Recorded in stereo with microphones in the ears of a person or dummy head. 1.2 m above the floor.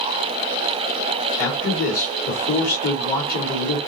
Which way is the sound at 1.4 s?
45° left (ahead or behind).